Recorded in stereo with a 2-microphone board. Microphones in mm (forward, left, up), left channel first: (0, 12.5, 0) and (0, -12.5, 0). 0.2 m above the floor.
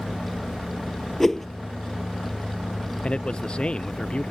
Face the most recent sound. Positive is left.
turn(degrees=35)  # may be behind; listen again after turning